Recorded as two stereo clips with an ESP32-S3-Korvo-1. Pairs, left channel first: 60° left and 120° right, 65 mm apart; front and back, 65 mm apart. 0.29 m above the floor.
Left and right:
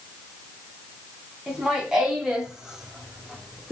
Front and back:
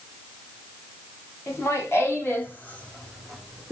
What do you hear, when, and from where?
1.5 s laughter: 40° right, 2.5 m; by 3.7 s 165° right, 1.2 m